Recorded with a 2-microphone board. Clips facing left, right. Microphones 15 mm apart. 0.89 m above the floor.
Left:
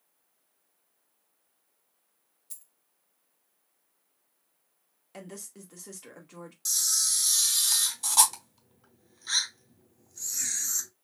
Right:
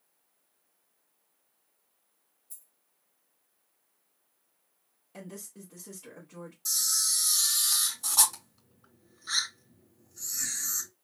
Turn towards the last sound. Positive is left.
turn(degrees=35)  # may be behind; listen again after turning